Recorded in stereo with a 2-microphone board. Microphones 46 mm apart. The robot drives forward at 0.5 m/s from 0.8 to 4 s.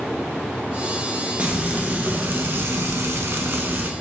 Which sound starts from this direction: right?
Frying, at 1.4 s.